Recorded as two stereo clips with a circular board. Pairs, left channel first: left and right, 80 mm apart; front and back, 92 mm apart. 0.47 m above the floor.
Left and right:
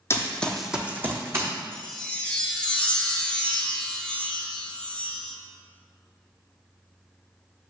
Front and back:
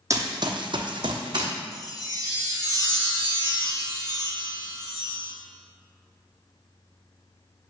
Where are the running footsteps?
135° left, 0.7 m; by 1.5 s 145° right, 1.3 m.